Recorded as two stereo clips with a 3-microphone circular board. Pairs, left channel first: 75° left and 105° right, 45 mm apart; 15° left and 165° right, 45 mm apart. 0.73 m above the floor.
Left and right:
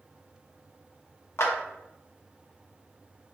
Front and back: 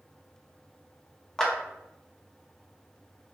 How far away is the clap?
About 0.6 m.